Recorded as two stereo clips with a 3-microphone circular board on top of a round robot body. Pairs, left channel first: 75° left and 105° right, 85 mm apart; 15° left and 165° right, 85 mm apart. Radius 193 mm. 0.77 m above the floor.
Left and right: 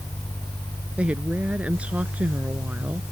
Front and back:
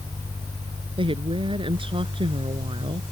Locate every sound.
1.0 s a woman speaking: straight behind